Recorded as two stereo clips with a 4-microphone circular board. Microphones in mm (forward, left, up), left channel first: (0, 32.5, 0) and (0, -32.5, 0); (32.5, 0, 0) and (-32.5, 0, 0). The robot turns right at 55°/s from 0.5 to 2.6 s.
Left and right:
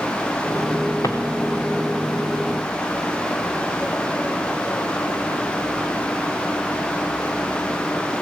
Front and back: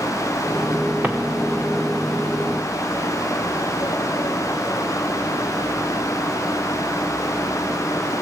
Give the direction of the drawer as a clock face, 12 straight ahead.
8 o'clock.